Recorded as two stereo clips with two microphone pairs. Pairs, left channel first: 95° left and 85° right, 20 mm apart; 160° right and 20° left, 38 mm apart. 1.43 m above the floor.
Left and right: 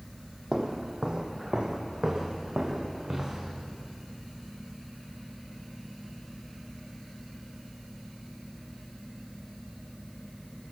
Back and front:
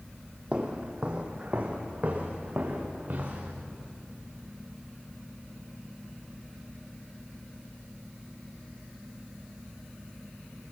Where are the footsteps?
40° right, 2.5 m; by 3.5 s 25° right, 4.5 m.